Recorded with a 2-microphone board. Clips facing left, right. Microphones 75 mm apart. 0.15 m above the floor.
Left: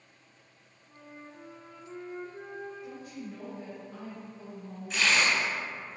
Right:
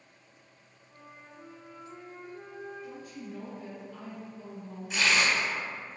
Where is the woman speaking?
30° left (ahead or behind), 1.8 m.